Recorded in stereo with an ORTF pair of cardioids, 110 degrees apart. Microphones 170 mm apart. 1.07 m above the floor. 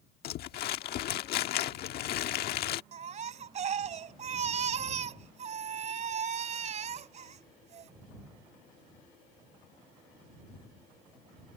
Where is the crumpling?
70° left.